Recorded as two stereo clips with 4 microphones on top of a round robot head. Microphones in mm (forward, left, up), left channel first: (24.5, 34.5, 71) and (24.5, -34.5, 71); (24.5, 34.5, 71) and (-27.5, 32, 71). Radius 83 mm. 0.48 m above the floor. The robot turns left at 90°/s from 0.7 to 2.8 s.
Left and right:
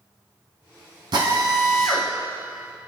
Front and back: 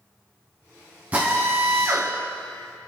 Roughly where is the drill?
Right.